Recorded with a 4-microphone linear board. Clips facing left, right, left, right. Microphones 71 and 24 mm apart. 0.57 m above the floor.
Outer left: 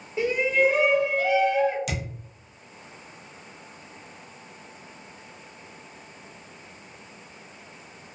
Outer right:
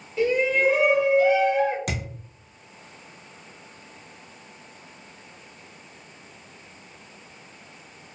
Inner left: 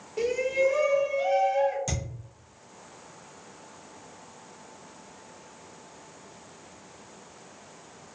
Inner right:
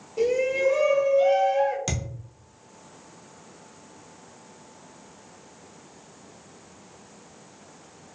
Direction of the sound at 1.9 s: 45° right (ahead or behind).